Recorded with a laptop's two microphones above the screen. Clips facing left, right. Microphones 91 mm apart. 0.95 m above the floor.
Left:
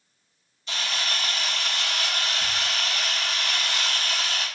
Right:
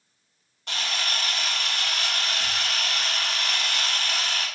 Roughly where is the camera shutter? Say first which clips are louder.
Even; right.